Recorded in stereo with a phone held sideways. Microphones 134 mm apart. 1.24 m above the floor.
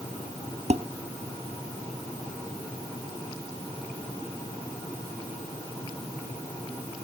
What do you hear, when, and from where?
0.7 s dishes clattering: 55° right (ahead or behind)